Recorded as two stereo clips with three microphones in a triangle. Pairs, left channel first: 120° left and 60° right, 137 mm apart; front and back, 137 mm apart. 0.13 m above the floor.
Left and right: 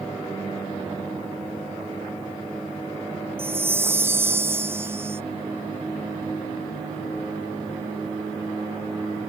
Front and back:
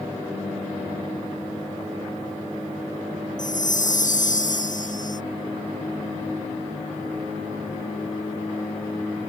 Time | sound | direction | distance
3.4 | a chime | 15° left | ?